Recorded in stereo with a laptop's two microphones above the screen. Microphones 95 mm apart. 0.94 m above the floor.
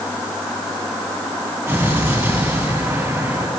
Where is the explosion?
25° right (ahead or behind), 7 m.